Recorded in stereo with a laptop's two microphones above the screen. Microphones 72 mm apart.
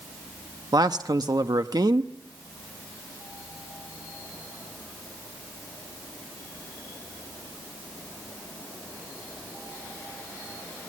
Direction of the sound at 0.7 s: 70° right (ahead or behind).